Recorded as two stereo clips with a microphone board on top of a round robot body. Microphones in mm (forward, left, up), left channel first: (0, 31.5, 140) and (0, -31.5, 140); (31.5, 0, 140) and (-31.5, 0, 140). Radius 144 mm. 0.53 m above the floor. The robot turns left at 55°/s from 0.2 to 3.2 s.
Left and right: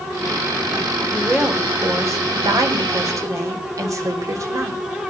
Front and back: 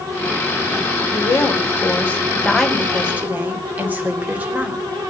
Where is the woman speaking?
5° right, 3 m; by 4.8 s 120° right, 3 m.